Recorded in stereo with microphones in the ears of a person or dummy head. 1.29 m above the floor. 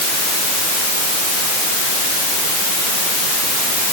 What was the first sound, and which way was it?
Only background noise.